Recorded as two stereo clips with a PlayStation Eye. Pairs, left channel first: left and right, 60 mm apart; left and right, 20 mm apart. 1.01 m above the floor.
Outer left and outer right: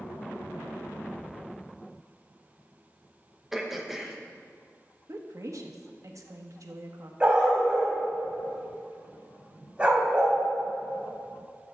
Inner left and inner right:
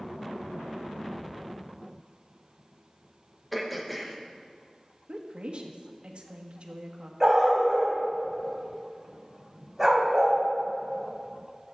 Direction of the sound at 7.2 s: 20° right (ahead or behind).